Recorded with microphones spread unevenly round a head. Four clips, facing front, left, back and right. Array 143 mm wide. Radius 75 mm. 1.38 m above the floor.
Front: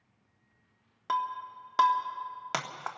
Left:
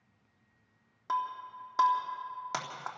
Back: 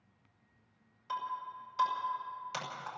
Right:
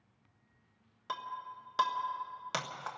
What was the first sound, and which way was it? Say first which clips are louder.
Breaking glass: left 7 dB, front 6 dB; 5° left.